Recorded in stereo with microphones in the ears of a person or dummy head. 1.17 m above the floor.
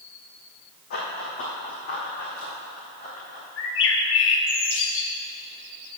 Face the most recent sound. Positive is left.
turn(degrees=55)  # may be behind; listen again after turning